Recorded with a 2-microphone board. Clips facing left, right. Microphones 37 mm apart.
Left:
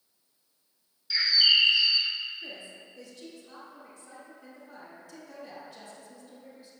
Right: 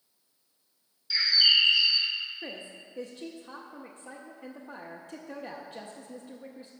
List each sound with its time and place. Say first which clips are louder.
1.1 s a bird: even; 5° left (ahead or behind), 0.9 m
2.4 s a woman speaking: right 2 dB; 45° right (ahead or behind), 0.7 m